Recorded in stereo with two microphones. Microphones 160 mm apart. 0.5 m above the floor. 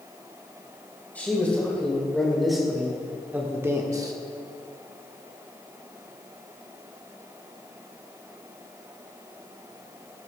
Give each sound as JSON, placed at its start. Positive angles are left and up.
{"t": 1.1, "sound": "a man speaking", "side_deg": 10, "distance_m": 2.5}